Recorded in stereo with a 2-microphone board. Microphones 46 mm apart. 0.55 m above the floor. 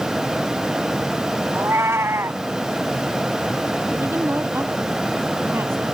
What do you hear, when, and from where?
1.5 s a cat meowing: 70° right (ahead or behind)
4.0 s a woman speaking: 55° right (ahead or behind)